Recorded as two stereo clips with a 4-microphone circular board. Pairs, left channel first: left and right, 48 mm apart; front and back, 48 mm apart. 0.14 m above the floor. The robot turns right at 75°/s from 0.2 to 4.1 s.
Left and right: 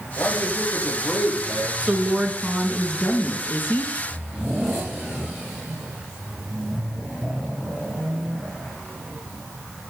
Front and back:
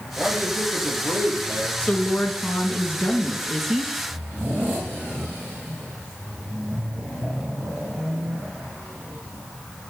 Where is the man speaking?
105° left, 5 m; by 1.7 s 140° right, 5 m.